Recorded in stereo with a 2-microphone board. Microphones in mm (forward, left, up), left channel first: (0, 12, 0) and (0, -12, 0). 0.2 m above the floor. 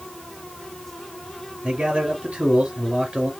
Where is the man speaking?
65° right (ahead or behind), 2.5 m.